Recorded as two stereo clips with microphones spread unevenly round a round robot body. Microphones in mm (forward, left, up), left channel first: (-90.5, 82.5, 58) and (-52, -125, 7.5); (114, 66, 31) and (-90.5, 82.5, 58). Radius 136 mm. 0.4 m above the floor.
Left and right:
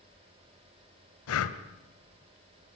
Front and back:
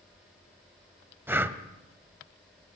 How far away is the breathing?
About 1.7 m.